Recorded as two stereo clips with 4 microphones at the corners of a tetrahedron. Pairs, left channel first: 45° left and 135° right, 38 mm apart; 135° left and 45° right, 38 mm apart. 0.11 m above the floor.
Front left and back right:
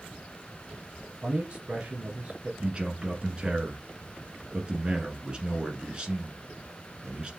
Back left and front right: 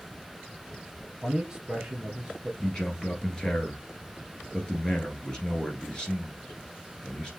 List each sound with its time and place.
1.1 s a man speaking: 115° right, 1.9 m
2.6 s a man speaking: straight behind, 1.5 m